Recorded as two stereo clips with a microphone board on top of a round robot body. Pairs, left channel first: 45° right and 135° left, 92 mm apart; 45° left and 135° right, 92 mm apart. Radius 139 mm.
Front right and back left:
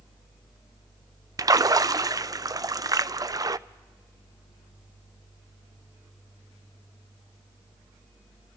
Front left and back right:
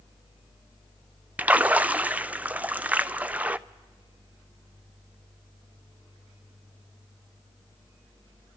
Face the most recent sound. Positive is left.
turn(degrees=155)